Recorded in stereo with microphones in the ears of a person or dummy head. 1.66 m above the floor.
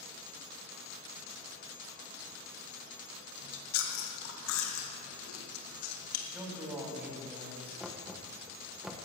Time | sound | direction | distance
3.4 | chewing | 85° left | 1.9 m
6.3 | a man speaking | 5° right (ahead or behind) | 3 m
7.8 | knocking | centre (ahead or behind) | 1.1 m